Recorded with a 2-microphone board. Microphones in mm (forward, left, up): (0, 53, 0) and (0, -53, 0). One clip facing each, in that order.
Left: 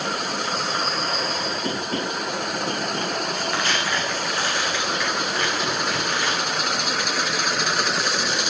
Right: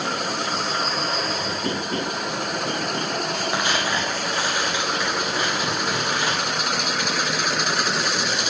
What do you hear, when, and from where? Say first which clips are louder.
3.5 s tearing paper: right 2 dB; 15° right (ahead or behind), 6.5 m